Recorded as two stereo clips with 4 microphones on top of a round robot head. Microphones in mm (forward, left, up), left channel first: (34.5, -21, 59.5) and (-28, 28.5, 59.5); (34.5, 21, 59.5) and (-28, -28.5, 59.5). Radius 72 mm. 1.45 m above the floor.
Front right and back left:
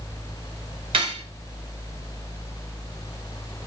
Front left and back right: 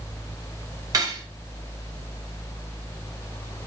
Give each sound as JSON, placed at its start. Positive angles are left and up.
{"t": 0.9, "sound": "cutlery clinking", "azimuth_deg": 165, "distance_m": 0.9}